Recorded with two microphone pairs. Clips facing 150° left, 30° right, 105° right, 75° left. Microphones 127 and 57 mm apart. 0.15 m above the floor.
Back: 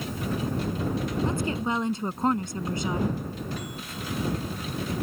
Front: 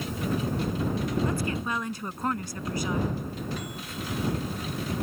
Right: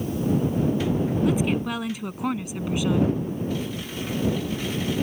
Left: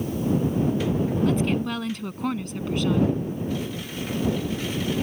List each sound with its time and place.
1.2 s a woman speaking: straight behind